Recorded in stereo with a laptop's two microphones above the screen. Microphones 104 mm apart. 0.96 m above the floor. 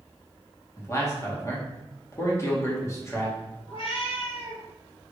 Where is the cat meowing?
65° left (ahead or behind), 2 m.